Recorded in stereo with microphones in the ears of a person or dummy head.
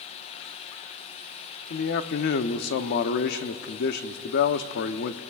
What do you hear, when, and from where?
1.7 s a man speaking: 60° left (ahead or behind), 0.8 m